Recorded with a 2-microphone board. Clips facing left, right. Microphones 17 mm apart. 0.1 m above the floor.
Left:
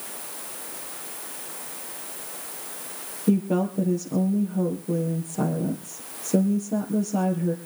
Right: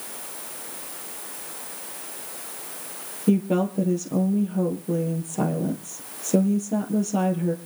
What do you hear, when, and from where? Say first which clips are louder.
3.3 s a woman speaking: right 1 dB; 30° right (ahead or behind), 3 m